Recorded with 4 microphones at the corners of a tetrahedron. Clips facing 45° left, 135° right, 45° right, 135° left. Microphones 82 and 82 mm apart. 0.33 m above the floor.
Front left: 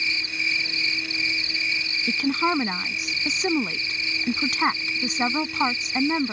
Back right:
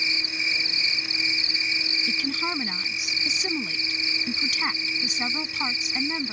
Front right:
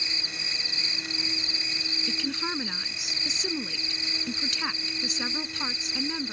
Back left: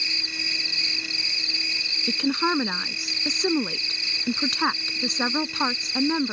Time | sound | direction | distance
0.0 | an insect | 75° right | ?
2.1 | a woman speaking | 95° left | ?